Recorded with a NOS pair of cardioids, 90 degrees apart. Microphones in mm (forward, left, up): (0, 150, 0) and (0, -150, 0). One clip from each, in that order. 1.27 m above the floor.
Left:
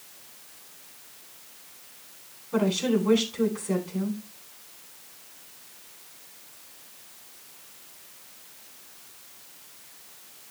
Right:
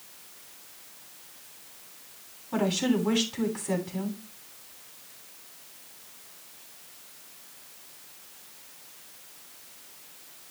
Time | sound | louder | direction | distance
2.5 | a woman speaking | left 2 dB | 70° right | 9.5 m